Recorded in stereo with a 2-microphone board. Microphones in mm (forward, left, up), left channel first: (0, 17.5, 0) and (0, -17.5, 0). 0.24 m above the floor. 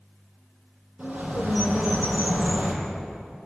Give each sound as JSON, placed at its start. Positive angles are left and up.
{"t": 1.0, "sound": "a bird", "side_deg": -40, "distance_m": 6.0}